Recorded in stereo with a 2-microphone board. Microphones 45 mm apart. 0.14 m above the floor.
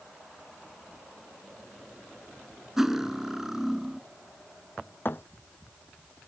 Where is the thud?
55° left (ahead or behind).